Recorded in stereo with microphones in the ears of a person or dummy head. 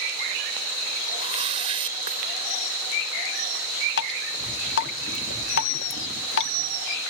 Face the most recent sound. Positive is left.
turn(degrees=70)  # may be behind; listen again after turning